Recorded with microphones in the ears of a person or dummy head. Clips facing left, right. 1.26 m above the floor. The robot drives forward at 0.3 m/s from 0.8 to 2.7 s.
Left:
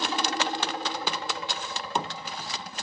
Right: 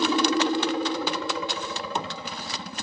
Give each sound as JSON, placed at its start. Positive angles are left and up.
{"t": 0.0, "sound": "a helicopter", "side_deg": -65}